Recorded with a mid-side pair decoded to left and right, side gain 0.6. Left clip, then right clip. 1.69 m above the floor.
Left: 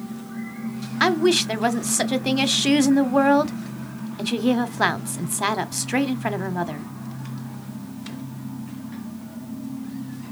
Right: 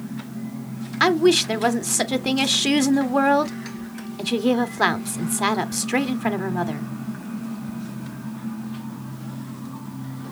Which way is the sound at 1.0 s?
5° right.